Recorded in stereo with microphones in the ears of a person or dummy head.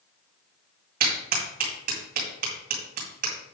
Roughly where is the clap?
Right.